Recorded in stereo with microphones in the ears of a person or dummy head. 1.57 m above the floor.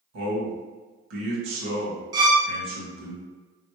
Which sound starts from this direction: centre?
A violin, at 2.1 s.